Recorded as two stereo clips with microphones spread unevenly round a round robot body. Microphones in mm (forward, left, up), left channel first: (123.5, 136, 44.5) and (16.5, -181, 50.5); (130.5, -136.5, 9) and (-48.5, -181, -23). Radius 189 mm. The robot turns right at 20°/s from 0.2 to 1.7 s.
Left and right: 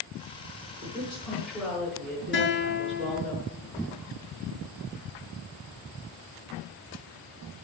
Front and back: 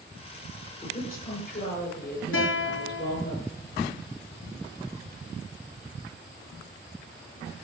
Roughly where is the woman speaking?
Ahead right.